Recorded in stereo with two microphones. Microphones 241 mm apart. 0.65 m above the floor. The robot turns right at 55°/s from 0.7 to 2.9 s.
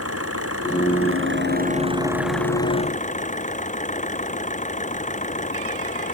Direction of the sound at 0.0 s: 90° right.